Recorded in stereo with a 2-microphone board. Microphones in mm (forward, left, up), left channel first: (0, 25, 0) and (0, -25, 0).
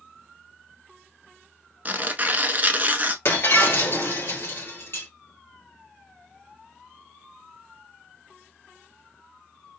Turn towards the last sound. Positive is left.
turn(degrees=50)  # may be behind; listen again after turning